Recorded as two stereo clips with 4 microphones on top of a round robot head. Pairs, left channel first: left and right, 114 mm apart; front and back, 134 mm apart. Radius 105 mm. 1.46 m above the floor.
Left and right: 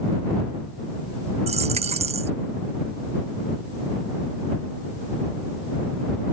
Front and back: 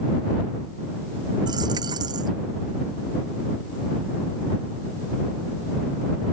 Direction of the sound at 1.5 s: 115° right.